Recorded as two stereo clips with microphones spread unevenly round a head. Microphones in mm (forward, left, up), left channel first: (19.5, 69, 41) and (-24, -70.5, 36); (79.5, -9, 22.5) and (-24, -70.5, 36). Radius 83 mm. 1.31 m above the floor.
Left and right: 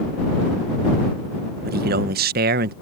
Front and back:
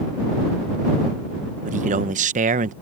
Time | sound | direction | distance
1.6 | a man speaking | 130° right | ?